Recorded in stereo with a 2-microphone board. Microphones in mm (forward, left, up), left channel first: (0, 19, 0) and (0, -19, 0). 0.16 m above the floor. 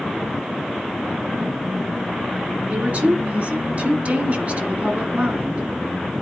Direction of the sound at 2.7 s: 40° right (ahead or behind).